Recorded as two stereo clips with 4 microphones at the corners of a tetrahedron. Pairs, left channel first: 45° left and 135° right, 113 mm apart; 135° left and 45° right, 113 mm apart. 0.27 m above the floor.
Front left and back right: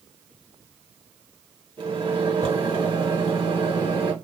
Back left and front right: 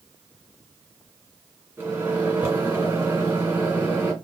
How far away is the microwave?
About 2 m.